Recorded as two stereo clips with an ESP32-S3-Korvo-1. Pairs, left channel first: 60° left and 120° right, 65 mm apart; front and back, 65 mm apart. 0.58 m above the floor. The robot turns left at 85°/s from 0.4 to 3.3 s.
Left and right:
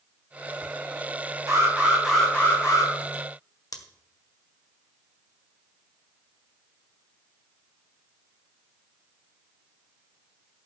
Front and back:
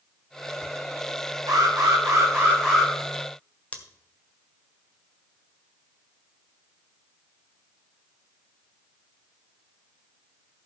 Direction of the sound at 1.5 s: 160° right.